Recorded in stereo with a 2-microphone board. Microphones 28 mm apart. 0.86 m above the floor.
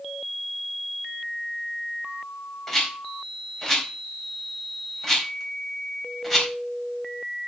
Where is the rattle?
15° left (ahead or behind), 4 m.